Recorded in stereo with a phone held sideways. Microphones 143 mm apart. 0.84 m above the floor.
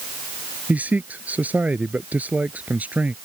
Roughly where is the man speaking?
Centre.